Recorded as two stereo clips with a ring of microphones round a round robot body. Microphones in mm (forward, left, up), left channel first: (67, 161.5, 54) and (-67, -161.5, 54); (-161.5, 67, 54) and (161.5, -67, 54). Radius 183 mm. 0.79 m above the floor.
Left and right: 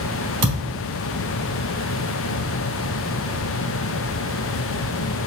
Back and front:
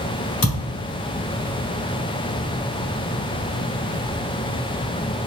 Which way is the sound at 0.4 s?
155° right.